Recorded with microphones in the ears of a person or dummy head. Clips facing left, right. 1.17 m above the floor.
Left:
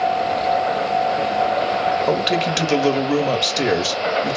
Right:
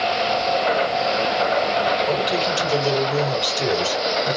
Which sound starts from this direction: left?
A man speaking, at 2.1 s.